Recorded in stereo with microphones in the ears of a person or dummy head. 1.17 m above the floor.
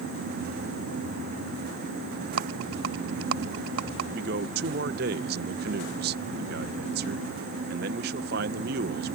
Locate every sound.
2.4 s a rattle: 75° right (ahead or behind)
4.1 s a man speaking: 55° right (ahead or behind)